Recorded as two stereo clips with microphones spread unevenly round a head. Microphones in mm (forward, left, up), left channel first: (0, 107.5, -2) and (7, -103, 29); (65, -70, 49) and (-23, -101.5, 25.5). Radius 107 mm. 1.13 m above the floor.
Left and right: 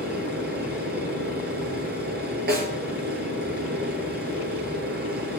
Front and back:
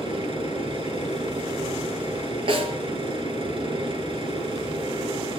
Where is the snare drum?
130° right, 4.5 m.